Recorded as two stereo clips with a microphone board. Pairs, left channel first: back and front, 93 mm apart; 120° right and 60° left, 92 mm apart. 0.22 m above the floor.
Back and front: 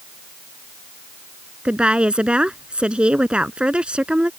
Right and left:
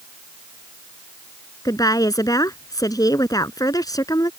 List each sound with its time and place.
1.6 s a woman speaking: 80° right